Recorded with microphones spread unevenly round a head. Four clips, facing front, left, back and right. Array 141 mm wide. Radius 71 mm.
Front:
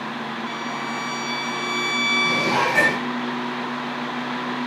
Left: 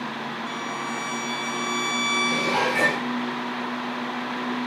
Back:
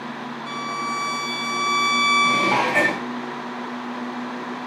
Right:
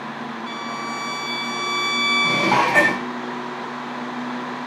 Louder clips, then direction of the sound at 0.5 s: Right 2 dB, back 1 dB; 165° right.